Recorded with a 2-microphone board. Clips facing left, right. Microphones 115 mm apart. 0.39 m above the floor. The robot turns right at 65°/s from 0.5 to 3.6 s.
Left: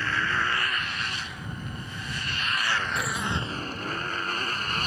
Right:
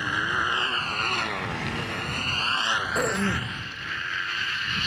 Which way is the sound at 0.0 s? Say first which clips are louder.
Even; 15° right (ahead or behind).